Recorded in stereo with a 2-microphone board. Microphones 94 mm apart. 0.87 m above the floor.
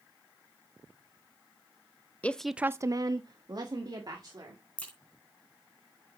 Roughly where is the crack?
Centre.